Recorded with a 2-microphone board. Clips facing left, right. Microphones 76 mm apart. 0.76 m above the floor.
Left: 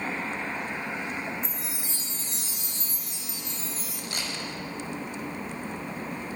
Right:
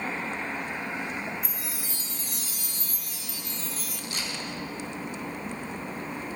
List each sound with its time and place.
1.4 s a chime: 30° left (ahead or behind), 1.4 m
4.1 s a camera shutter: 55° left (ahead or behind), 5.5 m